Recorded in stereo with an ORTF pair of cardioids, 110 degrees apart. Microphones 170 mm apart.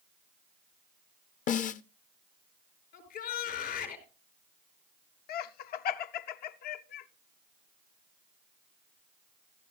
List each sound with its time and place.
1.5 s a snare drum: 50° left, 0.8 m
2.9 s a shout: 65° left, 5.5 m
5.3 s laughter: 65° left, 0.7 m